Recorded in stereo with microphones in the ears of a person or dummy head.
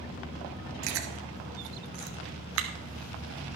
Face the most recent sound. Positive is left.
turn(degrees=-70)  # may be behind; listen again after turning